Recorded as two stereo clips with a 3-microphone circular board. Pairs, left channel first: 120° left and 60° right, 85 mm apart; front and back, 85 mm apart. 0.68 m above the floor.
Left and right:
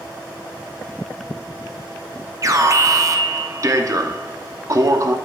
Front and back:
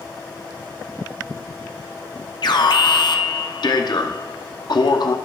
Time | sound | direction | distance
2.4 | an alarm | 15° right | 0.7 m